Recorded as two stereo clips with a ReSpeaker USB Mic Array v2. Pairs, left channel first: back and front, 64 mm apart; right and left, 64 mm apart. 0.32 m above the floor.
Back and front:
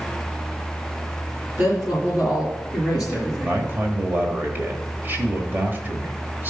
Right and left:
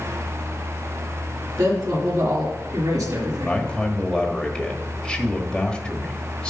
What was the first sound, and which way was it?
A woman speaking, 60° left.